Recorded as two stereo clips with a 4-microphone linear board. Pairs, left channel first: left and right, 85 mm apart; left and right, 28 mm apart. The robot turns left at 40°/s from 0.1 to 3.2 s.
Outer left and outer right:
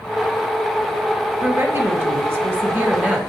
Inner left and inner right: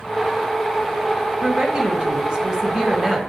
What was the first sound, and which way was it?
A woman speaking, 75° right.